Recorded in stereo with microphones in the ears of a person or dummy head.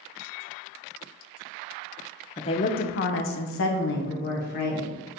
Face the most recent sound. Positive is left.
turn(degrees=50)  # may be behind; listen again after turning